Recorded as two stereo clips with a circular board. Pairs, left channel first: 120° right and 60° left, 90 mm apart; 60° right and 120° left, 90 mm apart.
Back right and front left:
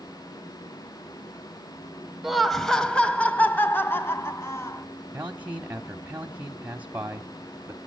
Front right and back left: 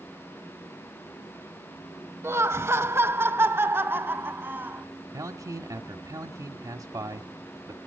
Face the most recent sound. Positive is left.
turn(degrees=125)